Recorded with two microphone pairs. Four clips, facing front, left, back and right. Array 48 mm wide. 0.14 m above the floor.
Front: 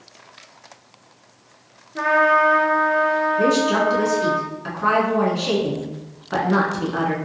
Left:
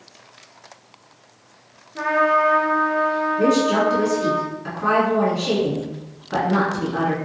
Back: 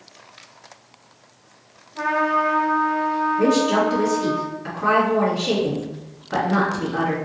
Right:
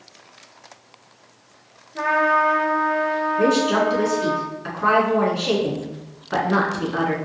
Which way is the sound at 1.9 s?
Straight ahead.